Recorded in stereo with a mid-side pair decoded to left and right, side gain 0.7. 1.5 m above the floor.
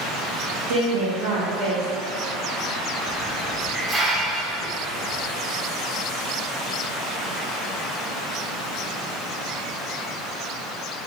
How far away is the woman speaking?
About 1.5 m.